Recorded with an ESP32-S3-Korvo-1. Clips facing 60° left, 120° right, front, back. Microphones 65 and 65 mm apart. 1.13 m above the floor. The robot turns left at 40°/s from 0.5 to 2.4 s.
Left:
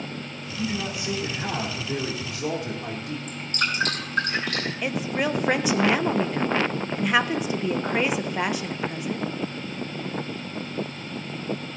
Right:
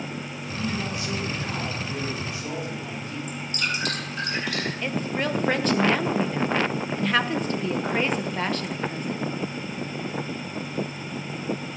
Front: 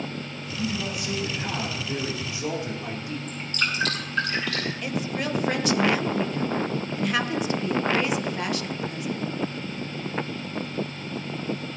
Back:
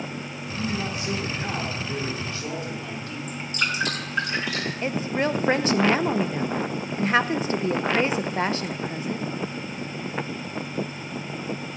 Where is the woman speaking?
135° left, 0.8 m.